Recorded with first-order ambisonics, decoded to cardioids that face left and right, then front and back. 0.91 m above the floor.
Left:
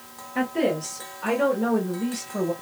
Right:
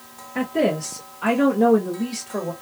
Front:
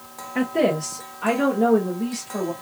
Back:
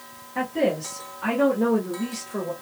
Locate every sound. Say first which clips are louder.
0.3 s a woman speaking: right 2 dB, front 3 dB; 30° right, 1.0 m; by 2.5 s 95° right, 1.9 m